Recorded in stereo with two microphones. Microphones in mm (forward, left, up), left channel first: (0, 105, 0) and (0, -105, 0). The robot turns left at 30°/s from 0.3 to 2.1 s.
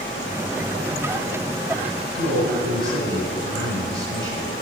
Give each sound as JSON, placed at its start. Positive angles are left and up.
{"t": 2.1, "sound": "a man speaking", "side_deg": 70, "distance_m": 2.5}